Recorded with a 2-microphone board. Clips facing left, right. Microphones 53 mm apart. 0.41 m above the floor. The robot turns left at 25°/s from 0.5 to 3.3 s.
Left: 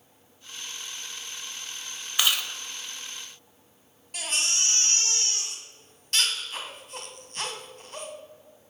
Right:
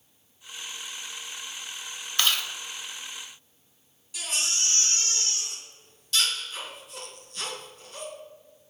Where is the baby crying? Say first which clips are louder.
Left 2 dB; 50° left (ahead or behind), 2 m.